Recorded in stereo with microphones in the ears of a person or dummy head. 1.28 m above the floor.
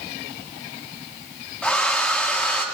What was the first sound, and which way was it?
A hair dryer, 10° left (ahead or behind).